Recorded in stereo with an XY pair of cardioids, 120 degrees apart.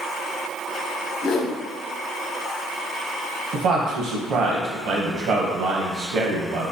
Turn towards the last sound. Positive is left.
turn(degrees=-65)